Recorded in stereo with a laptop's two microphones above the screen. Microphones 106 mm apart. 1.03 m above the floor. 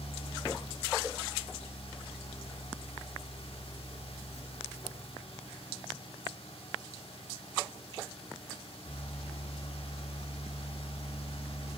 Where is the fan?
65° left (ahead or behind), 1.0 m.